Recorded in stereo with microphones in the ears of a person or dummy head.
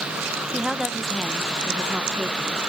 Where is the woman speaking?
Centre (ahead or behind), 0.9 m.